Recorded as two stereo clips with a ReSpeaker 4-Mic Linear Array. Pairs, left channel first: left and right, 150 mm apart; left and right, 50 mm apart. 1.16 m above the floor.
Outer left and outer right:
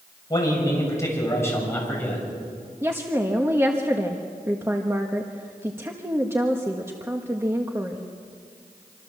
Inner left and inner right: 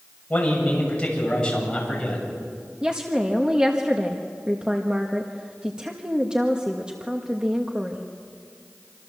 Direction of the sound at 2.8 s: 15° right (ahead or behind).